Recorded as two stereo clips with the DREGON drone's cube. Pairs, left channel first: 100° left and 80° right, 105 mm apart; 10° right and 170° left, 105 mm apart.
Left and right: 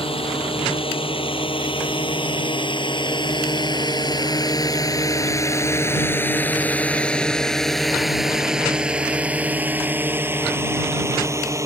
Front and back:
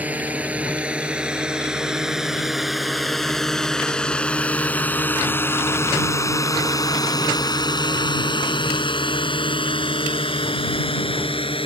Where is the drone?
95° left; by 11.7 s 25° right.